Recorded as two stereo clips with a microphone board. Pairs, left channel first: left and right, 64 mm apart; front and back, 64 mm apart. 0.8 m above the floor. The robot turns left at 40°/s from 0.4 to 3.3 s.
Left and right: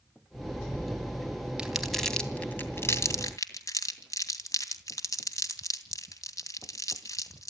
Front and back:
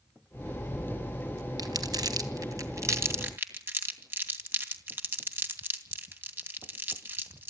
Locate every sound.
1.6 s crumpling: 165° right, 2.5 m; by 7.5 s 125° left, 2.5 m